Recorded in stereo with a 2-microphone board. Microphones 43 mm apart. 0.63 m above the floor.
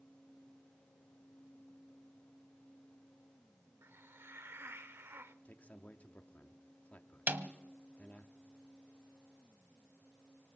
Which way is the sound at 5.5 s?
40° left (ahead or behind).